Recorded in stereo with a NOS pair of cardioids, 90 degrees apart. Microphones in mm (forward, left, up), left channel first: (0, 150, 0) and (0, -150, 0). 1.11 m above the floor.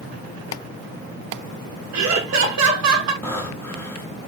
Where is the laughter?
65° right, 1.7 m.